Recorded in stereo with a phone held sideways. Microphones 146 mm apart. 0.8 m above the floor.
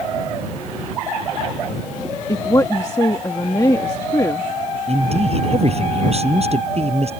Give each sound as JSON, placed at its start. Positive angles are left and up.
{"t": 2.3, "sound": "a woman speaking", "side_deg": 25}
{"t": 4.9, "sound": "a man speaking", "side_deg": -50}